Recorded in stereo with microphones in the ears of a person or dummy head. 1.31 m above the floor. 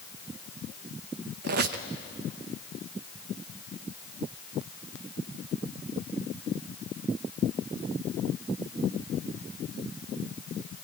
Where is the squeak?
60° right (ahead or behind), 0.8 m.